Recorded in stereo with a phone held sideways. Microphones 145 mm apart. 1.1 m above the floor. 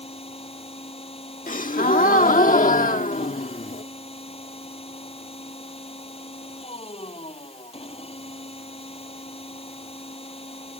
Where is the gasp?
65° left (ahead or behind).